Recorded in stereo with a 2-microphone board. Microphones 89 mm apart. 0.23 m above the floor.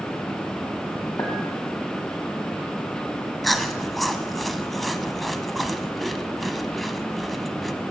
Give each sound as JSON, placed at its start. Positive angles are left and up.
{"t": 1.2, "sound": "a clink", "side_deg": 40, "distance_m": 1.4}
{"t": 3.4, "sound": "chewing", "side_deg": 0, "distance_m": 0.6}